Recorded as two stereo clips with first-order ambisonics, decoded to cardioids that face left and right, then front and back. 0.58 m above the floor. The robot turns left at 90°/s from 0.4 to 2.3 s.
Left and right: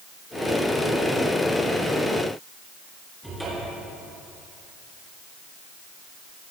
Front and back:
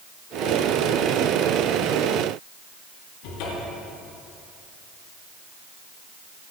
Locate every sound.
3.2 s a cupboard door: 5° right, 5.5 m